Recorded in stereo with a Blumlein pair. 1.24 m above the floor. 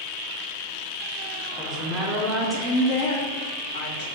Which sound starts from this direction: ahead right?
A woman speaking, at 1.6 s.